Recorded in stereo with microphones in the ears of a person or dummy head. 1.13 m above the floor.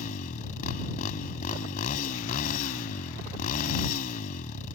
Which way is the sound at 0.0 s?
45° left (ahead or behind).